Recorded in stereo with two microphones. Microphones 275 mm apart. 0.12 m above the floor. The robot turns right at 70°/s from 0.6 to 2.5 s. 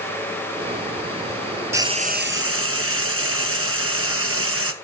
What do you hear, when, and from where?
1.7 s frying: 170° right, 1.5 m; by 4.7 s 115° right, 1.5 m